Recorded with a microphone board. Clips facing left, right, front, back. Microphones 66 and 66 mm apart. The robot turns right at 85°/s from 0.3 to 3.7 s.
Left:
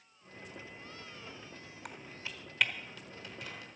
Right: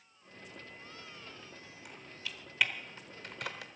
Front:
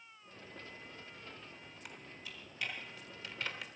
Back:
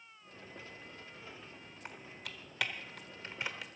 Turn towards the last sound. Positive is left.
turn(degrees=-85)